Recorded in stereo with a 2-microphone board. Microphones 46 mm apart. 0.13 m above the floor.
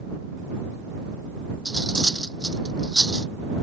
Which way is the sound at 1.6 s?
15° left (ahead or behind).